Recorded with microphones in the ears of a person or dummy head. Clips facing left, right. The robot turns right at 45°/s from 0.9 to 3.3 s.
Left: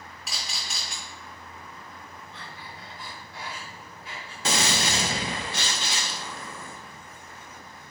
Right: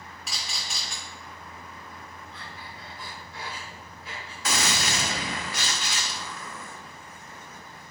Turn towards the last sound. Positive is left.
turn(degrees=35)  # may be behind; listen again after turning